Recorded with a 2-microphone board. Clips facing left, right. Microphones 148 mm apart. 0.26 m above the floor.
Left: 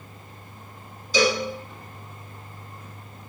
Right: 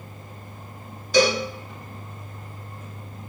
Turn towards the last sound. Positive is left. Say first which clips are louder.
# right 3 dB
turn(degrees=-60)  # may be behind; listen again after turning